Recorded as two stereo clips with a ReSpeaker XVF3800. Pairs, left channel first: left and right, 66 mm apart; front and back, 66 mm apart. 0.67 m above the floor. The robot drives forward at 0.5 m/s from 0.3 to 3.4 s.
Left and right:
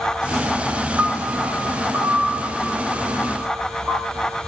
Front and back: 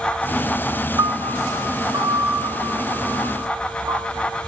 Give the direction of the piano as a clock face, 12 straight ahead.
5 o'clock.